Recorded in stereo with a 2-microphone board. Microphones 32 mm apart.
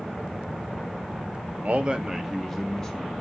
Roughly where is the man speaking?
Right.